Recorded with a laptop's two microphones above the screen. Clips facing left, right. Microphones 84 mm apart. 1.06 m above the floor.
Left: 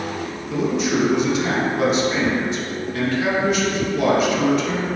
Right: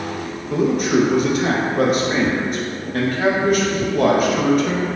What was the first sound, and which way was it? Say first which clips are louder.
A man speaking: right 4 dB; 50° right (ahead or behind).